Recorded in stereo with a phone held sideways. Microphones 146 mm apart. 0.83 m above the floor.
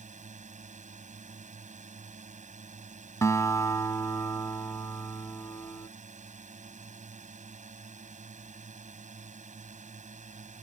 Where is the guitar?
20° left (ahead or behind).